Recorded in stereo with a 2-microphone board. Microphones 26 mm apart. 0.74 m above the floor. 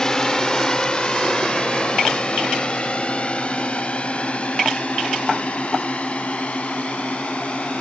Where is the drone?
20° left (ahead or behind); by 7.8 s 50° left (ahead or behind).